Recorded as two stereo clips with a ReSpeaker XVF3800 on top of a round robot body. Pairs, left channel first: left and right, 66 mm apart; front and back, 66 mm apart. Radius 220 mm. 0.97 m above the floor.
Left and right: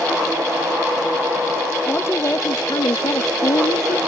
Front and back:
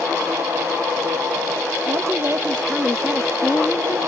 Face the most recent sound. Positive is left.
turn(degrees=70)